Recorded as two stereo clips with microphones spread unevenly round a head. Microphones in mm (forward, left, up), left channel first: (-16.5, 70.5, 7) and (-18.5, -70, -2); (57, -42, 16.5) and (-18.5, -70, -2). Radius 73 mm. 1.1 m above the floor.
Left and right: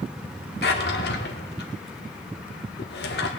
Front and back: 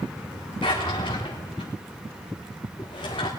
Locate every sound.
0.6 s a drawer: 70° left, 1.6 m